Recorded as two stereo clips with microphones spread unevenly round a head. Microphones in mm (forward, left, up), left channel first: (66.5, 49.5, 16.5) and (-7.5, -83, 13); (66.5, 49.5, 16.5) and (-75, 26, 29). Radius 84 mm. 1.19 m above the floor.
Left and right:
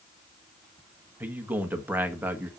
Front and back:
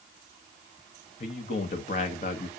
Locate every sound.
1.2 s a man speaking: 40° right, 1.5 m